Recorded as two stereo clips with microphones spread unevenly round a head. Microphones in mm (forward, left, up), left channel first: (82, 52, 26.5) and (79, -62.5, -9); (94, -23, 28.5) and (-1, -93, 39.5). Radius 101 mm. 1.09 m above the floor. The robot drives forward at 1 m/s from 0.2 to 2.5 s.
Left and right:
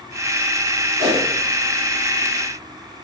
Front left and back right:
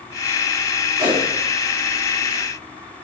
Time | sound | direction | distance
1.0 | a whoosh | 85° right | 2.5 m